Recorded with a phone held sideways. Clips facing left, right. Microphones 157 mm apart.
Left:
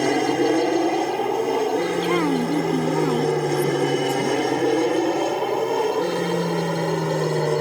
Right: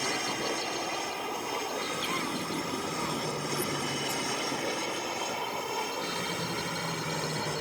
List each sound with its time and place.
0.0 s an aircraft: 60° left (ahead or behind)
2.0 s a woman speaking: 85° left